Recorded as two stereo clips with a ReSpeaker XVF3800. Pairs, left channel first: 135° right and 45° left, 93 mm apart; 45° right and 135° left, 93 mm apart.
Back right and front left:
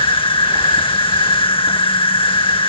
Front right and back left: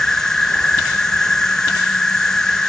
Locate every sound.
0.0 s an insect: 130° right